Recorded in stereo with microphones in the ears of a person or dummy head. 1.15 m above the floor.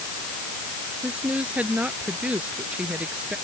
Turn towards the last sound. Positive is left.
turn(degrees=-10)  # may be behind; listen again after turning